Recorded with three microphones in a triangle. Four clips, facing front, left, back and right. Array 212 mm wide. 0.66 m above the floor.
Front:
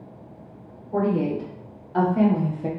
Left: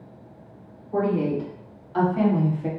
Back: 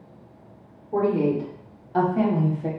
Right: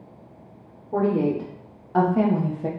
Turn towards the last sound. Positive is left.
turn(degrees=-75)